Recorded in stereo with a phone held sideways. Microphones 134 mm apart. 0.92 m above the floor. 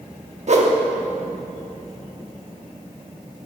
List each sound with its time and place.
0.5 s a whoosh: 60° right (ahead or behind), 0.9 m